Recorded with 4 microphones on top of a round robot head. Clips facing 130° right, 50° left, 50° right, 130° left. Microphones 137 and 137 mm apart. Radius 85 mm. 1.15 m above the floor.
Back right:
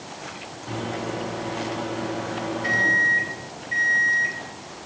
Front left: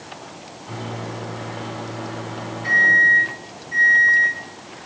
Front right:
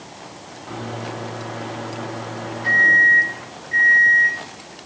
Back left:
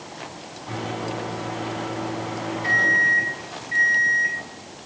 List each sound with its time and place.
0.7 s a microwave: 165° right, 3 m